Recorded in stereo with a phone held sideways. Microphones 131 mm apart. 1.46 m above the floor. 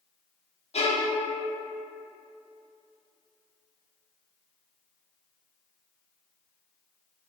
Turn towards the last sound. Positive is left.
turn(degrees=50)  # may be behind; listen again after turning